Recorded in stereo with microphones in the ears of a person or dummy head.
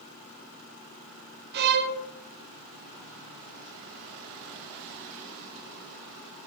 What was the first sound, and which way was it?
A violin, 60° right (ahead or behind).